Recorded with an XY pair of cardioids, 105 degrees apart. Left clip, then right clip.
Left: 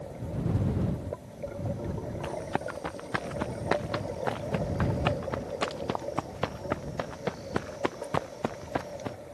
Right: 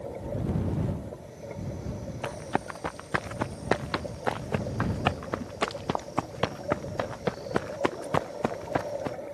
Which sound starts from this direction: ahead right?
Running footsteps, at 2.2 s.